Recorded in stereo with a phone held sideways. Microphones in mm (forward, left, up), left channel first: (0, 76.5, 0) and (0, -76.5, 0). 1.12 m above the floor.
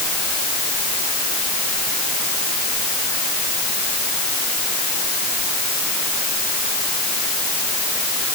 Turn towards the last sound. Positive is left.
No sound to turn to.